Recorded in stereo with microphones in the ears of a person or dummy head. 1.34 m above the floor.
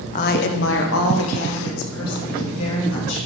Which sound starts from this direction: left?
A woman speaking, at 0.1 s.